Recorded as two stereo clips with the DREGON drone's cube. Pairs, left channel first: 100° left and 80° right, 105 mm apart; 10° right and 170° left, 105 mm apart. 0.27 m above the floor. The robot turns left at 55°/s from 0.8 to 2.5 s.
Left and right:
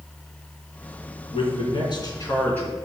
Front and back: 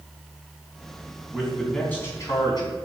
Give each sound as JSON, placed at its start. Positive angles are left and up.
{"t": 1.3, "sound": "a man speaking", "azimuth_deg": 95, "distance_m": 3.0}